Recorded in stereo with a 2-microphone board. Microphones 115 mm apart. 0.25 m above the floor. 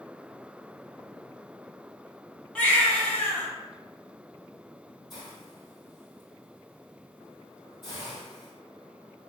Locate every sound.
2.5 s a baby crying: 10° left (ahead or behind), 1.4 m
5.1 s a hiss: 45° left (ahead or behind), 1.8 m